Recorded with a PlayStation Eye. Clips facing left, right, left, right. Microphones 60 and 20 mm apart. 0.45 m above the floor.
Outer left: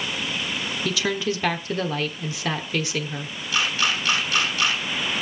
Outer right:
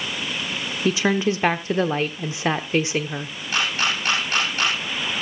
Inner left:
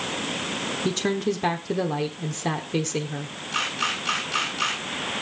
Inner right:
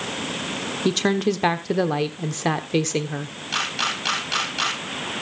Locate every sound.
0.8 s a woman speaking: 25° right (ahead or behind), 0.9 m
3.5 s a camera shutter: 50° right (ahead or behind), 10 m